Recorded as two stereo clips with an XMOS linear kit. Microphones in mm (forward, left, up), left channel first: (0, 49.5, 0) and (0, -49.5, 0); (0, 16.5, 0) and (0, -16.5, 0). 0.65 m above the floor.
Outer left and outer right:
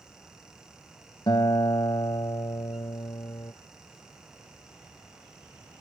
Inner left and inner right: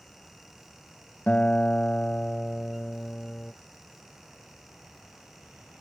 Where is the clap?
I don't hear a clap.